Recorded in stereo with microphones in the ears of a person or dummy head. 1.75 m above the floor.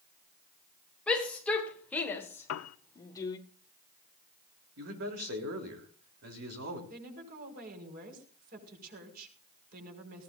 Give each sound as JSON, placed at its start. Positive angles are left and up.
{"t": 1.1, "sound": "a shout", "side_deg": 5, "distance_m": 2.5}
{"t": 2.5, "sound": "a piano", "side_deg": 85, "distance_m": 0.9}
{"t": 4.8, "sound": "a man speaking", "side_deg": -60, "distance_m": 3.5}
{"t": 6.9, "sound": "a woman speaking", "side_deg": -50, "distance_m": 5.5}